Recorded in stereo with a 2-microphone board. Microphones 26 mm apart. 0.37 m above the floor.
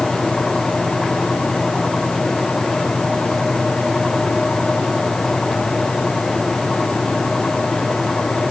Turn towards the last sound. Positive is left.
No sound to turn to.